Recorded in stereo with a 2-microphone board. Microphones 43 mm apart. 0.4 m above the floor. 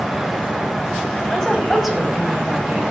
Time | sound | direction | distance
1.3 | a woman speaking | 10° left (ahead or behind) | 2.0 m